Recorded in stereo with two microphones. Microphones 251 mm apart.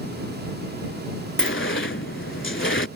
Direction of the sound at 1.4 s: 50° left (ahead or behind).